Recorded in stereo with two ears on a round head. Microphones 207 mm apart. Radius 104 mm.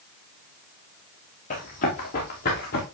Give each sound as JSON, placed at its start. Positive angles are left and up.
{"t": 1.5, "sound": "running footsteps", "side_deg": 35, "distance_m": 4.0}